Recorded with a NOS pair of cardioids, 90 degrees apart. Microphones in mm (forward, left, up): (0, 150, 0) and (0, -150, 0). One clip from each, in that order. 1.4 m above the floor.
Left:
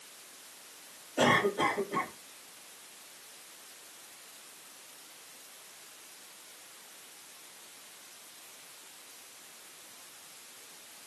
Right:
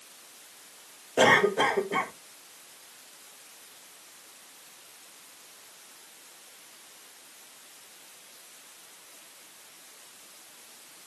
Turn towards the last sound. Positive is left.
turn(degrees=-55)